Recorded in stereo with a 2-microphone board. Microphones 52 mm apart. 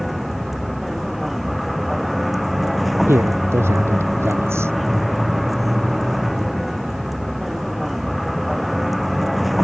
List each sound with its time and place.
0.0 s a vehicle: centre (ahead or behind)
3.1 s a man speaking: 55° right (ahead or behind)